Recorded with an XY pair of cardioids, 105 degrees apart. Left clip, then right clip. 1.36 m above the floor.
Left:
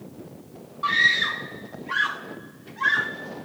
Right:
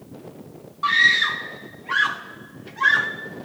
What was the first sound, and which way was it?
A scream, 25° right.